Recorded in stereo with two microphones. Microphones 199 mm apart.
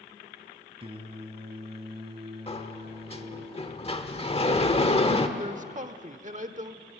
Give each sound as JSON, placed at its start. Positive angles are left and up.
{"t": 0.8, "sound": "singing", "side_deg": -30, "distance_m": 1.7}
{"t": 2.5, "sound": "a sliding door", "side_deg": 30, "distance_m": 1.3}
{"t": 5.4, "sound": "a man speaking", "side_deg": -40, "distance_m": 1.1}